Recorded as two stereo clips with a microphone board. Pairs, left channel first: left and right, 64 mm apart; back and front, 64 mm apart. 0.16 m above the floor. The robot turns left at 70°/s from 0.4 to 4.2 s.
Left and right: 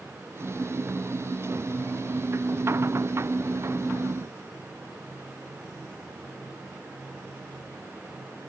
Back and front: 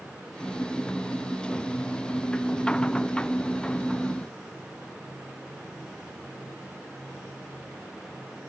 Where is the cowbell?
I don't hear a cowbell.